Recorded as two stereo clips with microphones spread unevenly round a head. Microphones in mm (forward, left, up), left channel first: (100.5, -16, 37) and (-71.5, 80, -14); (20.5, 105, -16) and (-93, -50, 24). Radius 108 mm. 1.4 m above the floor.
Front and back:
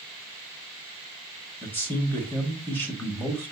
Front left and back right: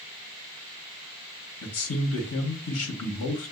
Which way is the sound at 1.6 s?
50° left.